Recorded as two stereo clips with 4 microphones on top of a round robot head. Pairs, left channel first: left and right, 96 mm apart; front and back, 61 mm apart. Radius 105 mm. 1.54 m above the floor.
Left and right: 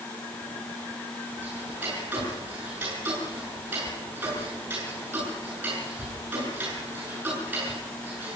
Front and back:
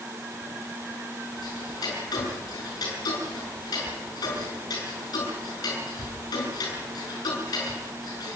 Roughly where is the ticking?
Ahead.